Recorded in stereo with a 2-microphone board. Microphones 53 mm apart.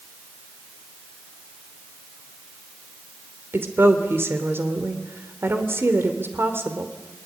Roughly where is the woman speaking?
Right.